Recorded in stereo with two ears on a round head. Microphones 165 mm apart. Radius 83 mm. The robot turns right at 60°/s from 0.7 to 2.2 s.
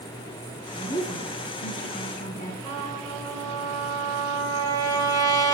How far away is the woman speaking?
About 1.2 m.